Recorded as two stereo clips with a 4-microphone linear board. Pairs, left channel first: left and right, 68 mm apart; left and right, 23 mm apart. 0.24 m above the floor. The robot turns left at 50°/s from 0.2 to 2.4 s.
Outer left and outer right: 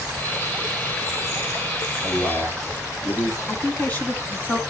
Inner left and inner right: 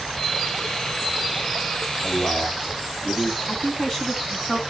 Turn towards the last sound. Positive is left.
turn(degrees=20)  # may be behind; listen again after turning